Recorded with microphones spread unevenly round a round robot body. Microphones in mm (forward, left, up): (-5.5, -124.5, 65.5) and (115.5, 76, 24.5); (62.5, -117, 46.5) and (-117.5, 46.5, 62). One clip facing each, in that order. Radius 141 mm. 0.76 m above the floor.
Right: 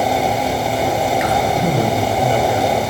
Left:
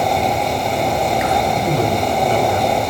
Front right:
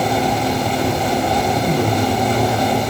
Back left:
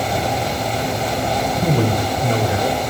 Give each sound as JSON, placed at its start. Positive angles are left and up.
{"t": 1.6, "sound": "a man speaking", "azimuth_deg": 160, "distance_m": 4.5}